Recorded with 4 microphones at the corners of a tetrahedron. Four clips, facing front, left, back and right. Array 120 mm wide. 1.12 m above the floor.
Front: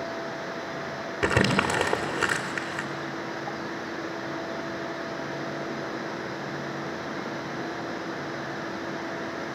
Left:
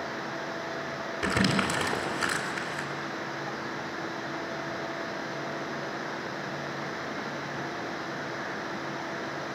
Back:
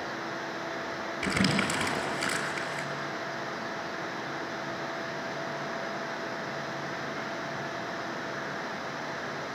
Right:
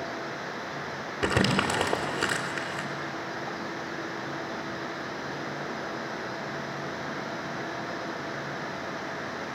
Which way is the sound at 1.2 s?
30° right.